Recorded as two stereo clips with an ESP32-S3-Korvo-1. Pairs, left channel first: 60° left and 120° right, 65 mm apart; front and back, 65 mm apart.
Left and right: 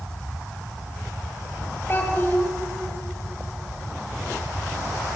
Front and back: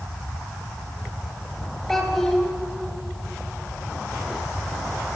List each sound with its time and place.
1.9 s a child speaking: 85° left, 0.8 m